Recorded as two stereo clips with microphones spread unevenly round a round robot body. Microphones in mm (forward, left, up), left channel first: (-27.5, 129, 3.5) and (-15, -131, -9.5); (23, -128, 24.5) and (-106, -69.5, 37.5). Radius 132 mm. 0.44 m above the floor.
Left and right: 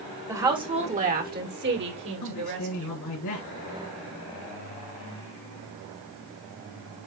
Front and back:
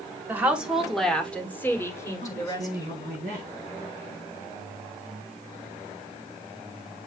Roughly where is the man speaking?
Left.